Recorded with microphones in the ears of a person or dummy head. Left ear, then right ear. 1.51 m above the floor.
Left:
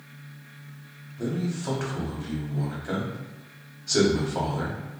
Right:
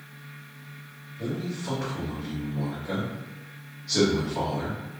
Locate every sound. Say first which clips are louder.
1.2 s a man speaking: left 2 dB; 70° left (ahead or behind), 1.4 m